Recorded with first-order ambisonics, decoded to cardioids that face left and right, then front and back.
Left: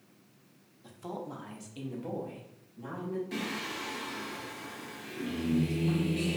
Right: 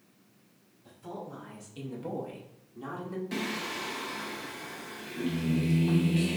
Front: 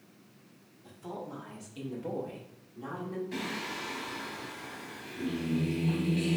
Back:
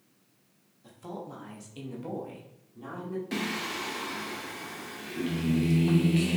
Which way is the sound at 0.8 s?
105° left.